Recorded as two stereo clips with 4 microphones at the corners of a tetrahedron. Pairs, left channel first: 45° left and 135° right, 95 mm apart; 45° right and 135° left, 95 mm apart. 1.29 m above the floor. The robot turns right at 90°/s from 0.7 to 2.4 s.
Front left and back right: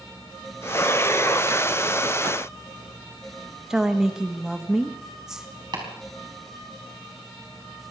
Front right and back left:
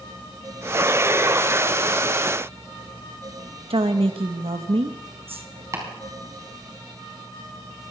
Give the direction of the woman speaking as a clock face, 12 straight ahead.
7 o'clock.